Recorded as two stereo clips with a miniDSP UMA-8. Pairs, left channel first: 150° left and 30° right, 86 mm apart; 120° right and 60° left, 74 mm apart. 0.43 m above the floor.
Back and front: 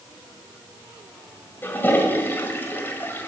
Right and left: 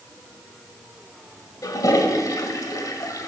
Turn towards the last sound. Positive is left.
turn(degrees=-150)